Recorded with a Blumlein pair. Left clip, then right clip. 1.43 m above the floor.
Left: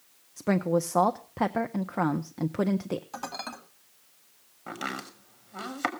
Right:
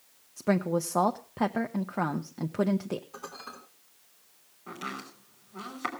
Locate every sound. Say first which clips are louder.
0.4 s a woman speaking: left 2 dB; 5° left, 0.7 m
3.1 s dishes clattering: left 6 dB; 60° left, 2.5 m
4.7 s chopping: left 3 dB; 70° left, 3 m